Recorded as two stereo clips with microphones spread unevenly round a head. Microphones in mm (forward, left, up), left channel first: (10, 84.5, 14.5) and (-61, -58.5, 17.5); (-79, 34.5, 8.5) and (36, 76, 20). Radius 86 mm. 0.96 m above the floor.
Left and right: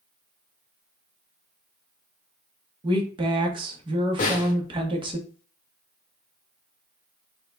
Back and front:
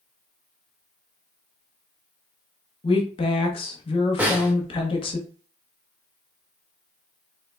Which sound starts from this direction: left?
A snare drum, at 4.2 s.